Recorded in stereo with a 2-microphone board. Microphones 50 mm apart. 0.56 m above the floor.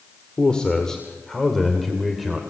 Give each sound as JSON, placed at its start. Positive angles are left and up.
{"t": 0.4, "sound": "a man speaking", "side_deg": 20, "distance_m": 2.0}